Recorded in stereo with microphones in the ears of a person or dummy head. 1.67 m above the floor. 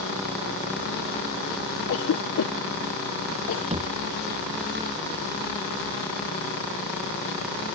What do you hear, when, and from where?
1.9 s a cough: 65° left (ahead or behind)
3.7 s a thud: 40° right (ahead or behind)